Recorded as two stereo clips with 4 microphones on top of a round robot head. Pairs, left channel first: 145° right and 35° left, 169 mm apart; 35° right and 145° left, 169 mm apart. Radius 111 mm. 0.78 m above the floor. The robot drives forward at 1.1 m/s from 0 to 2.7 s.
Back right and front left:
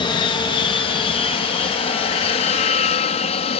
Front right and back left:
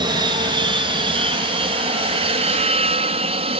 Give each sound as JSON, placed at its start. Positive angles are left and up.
{"t": 0.0, "sound": "an aircraft", "azimuth_deg": -175}